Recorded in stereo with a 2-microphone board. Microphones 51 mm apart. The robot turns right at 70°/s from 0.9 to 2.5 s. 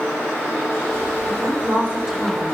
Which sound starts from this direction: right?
A woman speaking, at 1.3 s.